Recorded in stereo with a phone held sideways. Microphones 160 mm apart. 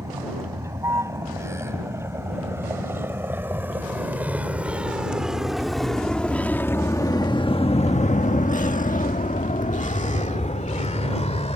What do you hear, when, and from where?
0.0 s a vehicle: 20° right (ahead or behind); by 11.6 s 45° left (ahead or behind)